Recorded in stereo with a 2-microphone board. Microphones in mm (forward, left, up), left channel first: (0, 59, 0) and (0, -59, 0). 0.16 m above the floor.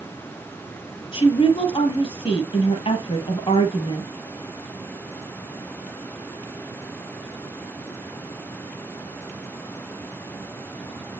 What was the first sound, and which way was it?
A woman speaking, 50° left (ahead or behind).